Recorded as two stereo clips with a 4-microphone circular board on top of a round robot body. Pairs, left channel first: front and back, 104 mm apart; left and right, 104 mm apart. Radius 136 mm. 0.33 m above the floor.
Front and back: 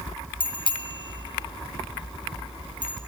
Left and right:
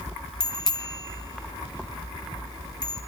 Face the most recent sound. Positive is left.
turn(degrees=40)